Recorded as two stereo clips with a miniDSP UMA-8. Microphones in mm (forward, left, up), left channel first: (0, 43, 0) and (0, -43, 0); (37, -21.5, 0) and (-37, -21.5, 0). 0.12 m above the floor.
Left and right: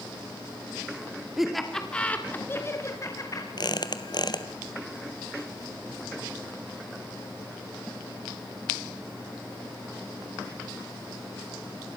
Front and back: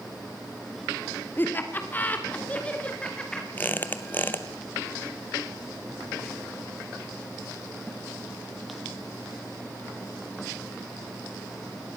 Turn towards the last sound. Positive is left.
turn(degrees=60)